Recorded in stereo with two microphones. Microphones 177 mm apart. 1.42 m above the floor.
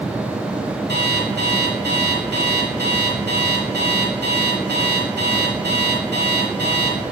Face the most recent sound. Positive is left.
turn(degrees=-70)  # may be behind; listen again after turning